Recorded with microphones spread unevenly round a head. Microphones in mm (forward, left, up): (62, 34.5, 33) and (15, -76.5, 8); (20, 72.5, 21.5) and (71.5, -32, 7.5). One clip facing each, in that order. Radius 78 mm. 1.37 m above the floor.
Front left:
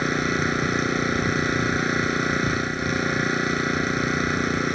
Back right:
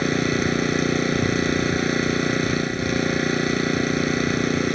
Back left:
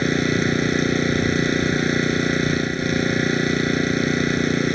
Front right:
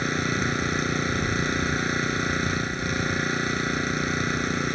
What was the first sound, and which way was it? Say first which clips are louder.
An engine running: back right 3 dB, back left 7 dB; 170° left.